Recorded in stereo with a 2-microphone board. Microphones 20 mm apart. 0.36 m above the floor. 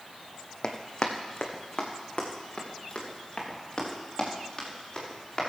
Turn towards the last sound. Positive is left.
turn(degrees=20)  # may be behind; listen again after turning